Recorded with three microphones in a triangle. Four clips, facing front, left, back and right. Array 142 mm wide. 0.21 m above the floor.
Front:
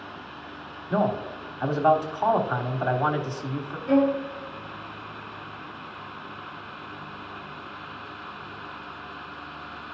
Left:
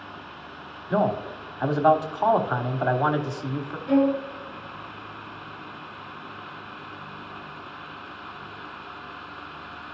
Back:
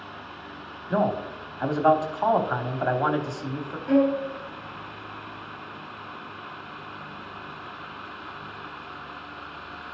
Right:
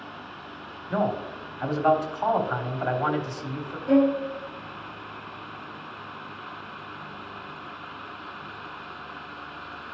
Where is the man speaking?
110° left, 1.0 m.